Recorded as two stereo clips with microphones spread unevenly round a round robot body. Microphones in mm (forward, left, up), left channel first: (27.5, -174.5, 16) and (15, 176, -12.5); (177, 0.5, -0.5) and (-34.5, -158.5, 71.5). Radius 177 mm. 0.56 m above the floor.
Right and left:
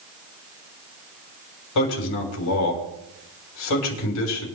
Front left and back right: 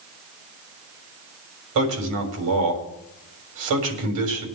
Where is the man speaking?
135° right, 3.5 m.